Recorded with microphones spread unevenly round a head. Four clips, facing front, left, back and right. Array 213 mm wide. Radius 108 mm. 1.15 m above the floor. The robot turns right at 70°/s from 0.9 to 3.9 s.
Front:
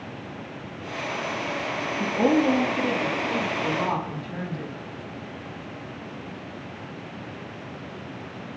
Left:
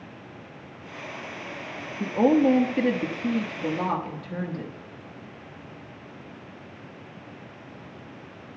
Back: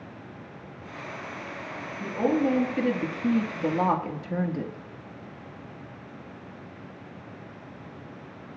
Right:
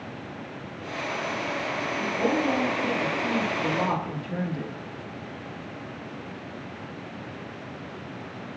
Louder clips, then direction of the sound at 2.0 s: Left 7 dB, front 3 dB; 55° left.